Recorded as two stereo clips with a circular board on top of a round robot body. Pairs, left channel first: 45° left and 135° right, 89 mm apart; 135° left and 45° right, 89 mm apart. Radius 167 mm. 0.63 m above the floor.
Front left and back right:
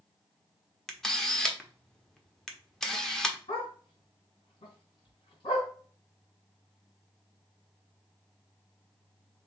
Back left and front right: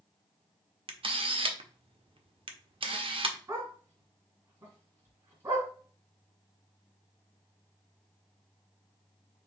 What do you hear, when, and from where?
0.9 s a camera shutter: 40° right, 1.0 m
3.5 s a dog barking: 15° left, 2.5 m